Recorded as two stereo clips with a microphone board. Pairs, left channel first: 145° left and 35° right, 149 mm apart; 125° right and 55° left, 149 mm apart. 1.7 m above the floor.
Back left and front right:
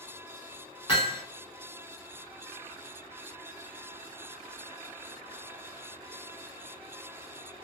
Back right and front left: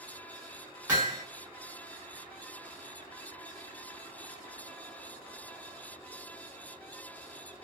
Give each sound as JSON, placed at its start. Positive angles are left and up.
{"t": 0.9, "sound": "hammering", "azimuth_deg": 125, "distance_m": 1.6}